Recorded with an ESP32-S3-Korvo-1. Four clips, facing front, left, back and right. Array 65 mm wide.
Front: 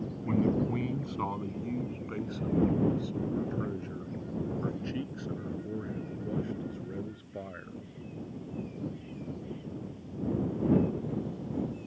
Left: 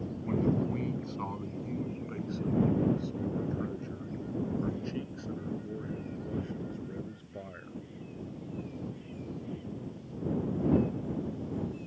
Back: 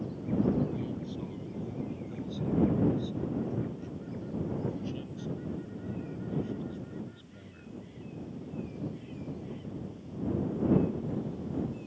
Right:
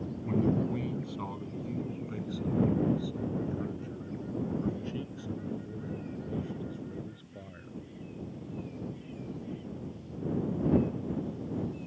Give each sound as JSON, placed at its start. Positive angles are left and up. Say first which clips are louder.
{"t": 0.2, "sound": "a man speaking", "louder": "right 1 dB, front 1 dB", "azimuth_deg": 5}